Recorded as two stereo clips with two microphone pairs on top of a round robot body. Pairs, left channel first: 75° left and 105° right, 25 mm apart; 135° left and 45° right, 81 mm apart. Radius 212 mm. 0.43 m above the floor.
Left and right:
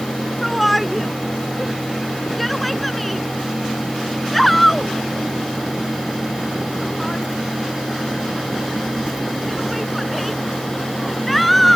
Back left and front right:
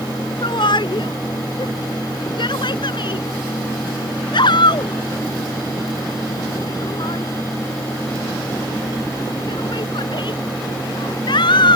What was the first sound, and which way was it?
A shout, 160° left.